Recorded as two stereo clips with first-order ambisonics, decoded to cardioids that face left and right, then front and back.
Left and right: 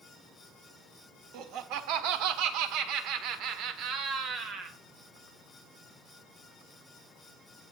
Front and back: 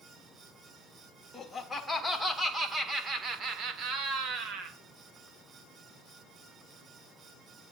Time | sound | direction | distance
1.3 | laughter | 75° right | 2 m